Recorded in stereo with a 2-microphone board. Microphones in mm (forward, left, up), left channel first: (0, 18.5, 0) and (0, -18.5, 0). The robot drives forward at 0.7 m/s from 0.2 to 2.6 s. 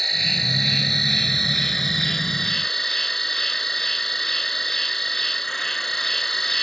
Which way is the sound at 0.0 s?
5° left (ahead or behind).